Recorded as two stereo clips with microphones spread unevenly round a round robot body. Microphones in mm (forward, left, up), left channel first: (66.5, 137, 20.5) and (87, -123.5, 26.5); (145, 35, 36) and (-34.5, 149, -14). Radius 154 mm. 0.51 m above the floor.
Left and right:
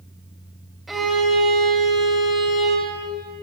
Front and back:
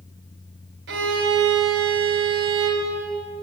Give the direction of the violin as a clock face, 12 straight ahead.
6 o'clock.